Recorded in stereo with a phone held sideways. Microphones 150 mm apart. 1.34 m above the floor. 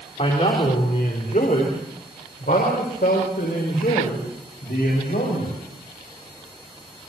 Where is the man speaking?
45° left (ahead or behind), 4 m; by 5.5 s 90° left, 7.5 m.